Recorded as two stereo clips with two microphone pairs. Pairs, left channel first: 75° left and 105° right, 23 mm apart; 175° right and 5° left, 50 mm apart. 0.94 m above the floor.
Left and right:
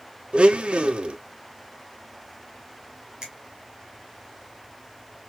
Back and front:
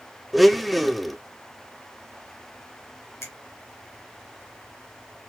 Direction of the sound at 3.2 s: 155° right.